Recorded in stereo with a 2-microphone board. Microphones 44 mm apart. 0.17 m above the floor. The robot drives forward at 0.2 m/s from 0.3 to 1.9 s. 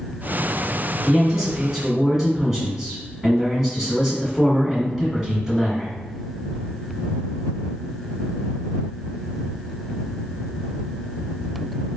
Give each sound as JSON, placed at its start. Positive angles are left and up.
{"t": 1.1, "sound": "a man speaking", "side_deg": -5, "distance_m": 1.6}